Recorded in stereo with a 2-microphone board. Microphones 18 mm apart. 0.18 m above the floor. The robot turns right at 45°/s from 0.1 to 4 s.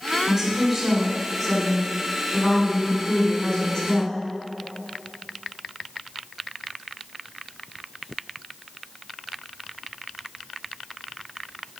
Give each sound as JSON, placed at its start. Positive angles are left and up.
{"t": 0.3, "sound": "a woman speaking", "azimuth_deg": -90, "distance_m": 1.7}